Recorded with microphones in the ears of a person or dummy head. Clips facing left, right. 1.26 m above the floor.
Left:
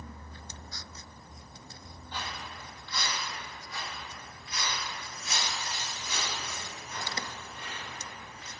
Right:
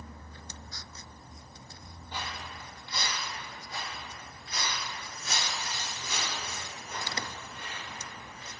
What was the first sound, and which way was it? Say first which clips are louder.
Footsteps: even; 10° right (ahead or behind).